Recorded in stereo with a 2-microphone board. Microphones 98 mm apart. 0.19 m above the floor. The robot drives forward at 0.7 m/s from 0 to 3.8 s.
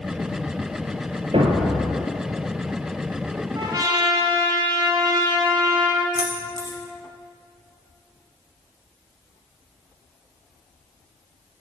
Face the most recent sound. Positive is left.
turn(degrees=45)  # may be behind; listen again after turning